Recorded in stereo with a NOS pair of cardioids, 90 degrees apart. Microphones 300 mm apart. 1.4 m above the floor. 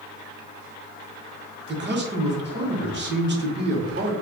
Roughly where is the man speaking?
Ahead right.